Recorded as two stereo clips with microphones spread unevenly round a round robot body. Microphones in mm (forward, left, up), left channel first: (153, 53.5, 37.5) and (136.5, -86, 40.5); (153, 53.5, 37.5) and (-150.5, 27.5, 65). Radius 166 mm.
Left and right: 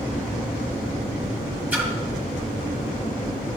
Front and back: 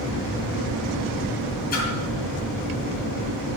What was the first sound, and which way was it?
A splash, 25° right.